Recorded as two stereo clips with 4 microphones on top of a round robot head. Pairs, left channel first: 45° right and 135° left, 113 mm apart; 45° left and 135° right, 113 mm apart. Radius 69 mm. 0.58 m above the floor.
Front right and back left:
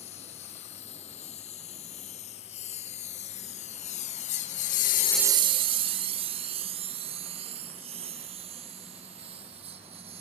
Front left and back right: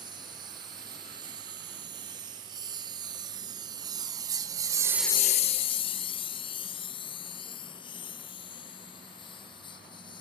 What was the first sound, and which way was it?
A lawn mower, 80° right.